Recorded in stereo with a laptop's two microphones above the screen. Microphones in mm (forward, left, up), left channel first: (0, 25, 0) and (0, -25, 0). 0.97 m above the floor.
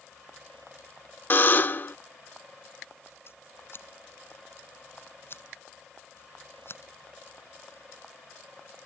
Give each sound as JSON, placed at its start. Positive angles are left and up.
{"t": 1.3, "sound": "a buzzer", "side_deg": 40}
{"t": 3.3, "sound": "scissors", "side_deg": 55}